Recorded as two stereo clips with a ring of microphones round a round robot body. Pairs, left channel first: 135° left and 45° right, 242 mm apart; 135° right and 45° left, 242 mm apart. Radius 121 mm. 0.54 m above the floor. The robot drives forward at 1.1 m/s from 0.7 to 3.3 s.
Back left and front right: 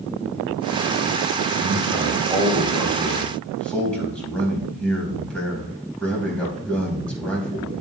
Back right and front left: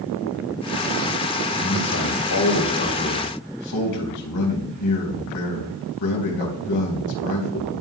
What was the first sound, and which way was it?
A man speaking, 110° right.